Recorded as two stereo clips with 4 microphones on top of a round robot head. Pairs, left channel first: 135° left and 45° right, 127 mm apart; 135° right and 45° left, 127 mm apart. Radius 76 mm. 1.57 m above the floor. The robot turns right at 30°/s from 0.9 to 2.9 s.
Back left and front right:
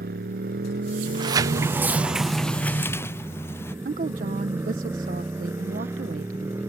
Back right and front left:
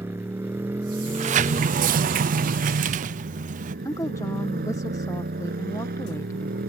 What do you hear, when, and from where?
0.0 s a motorcycle: 30° right; by 6.7 s 30° left
1.1 s a sliding door: 10° left; by 3.8 s 65° left
3.9 s a woman speaking: 70° right